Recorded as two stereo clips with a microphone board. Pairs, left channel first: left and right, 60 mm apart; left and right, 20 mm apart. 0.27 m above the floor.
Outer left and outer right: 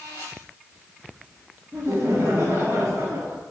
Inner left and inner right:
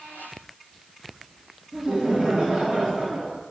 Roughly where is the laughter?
Right.